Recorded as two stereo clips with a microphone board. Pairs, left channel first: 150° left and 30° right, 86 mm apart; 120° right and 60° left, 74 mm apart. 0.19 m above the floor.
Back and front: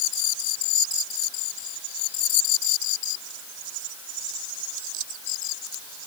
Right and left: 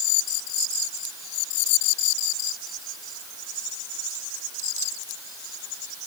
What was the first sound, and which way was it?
Only background noise.